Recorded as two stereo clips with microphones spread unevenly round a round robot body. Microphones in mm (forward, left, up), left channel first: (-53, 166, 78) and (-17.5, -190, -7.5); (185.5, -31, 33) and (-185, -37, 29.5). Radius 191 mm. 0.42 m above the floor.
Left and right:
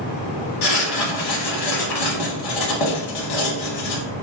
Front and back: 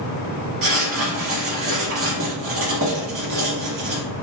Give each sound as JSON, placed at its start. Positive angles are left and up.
{"t": 0.6, "sound": "writing", "azimuth_deg": 125, "distance_m": 0.7}